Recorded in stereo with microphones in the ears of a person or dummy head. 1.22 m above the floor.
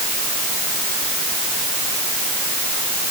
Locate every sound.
Only background noise.